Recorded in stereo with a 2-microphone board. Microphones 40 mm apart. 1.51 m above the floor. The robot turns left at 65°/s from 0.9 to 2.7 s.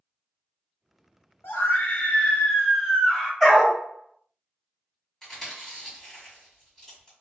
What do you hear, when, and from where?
1.4 s a scream: 100° left, 1.4 m; by 3.3 s 15° left, 1.4 m
3.4 s a dog barking: 10° left (ahead or behind), 1.6 m
5.2 s chewing: 10° left (ahead or behind), 1.7 m